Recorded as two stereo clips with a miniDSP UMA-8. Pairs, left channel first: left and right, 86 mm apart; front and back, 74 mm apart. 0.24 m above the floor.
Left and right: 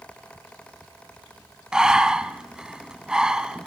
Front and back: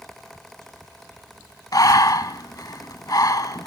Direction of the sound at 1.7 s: 10° right.